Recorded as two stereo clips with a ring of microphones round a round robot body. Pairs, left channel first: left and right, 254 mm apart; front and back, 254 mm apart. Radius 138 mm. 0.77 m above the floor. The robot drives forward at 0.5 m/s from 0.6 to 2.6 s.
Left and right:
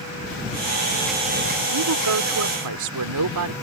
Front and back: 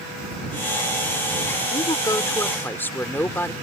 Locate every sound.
1.7 s a woman speaking: 70° right; by 3.5 s 80° right